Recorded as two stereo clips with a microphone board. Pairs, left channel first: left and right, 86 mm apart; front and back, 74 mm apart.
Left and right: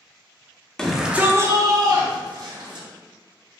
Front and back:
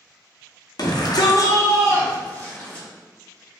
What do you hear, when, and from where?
0.8 s a shout: 10° left, 0.9 m; by 2.9 s 75° right, 2 m